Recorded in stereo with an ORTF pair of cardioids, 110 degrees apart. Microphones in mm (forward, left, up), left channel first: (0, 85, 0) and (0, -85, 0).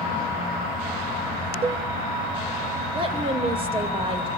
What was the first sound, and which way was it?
A cowbell, 35° right.